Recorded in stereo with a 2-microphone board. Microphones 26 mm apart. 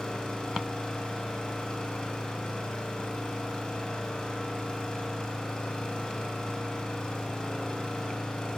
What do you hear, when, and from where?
0.0 s an engine running: 30° left (ahead or behind), 3 m